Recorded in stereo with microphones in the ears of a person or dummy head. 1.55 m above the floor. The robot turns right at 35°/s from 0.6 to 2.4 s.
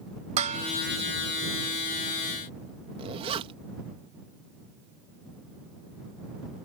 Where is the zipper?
30° right (ahead or behind).